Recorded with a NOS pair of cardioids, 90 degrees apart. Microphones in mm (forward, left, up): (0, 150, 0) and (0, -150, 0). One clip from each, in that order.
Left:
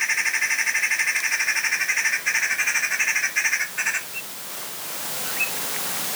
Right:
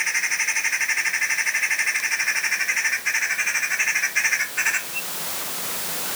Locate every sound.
Only background noise.